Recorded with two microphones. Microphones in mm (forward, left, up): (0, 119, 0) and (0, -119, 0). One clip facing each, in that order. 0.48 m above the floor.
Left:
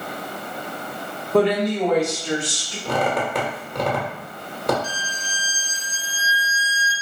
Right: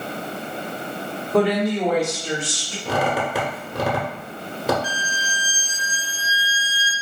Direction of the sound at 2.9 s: 5° right (ahead or behind).